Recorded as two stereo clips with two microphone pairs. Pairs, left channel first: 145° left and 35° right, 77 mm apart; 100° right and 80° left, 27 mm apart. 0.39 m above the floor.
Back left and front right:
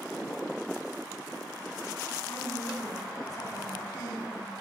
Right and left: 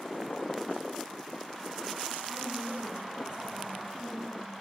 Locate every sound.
2.3 s a woman speaking: 125° left, 3.5 m